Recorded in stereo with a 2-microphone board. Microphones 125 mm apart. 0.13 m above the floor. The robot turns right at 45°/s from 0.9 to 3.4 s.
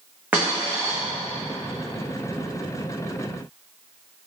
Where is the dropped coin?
10° right (ahead or behind), 1.4 m.